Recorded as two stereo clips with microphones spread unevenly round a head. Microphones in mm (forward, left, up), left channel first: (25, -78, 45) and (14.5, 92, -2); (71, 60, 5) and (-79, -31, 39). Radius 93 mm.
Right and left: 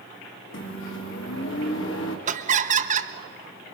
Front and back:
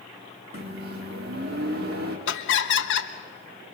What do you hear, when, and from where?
0.5 s a microwave: 110° right, 2.5 m
2.3 s laughter: 45° left, 1.4 m